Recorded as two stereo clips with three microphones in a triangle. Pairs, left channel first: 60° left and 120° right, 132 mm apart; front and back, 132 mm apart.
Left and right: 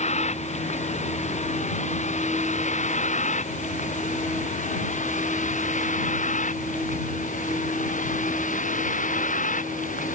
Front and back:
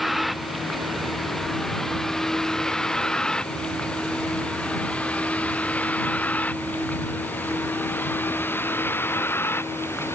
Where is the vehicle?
90° left; by 10.2 s 70° left.